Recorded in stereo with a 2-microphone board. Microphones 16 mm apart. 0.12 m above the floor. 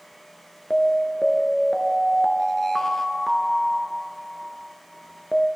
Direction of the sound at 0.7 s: 30° left (ahead or behind).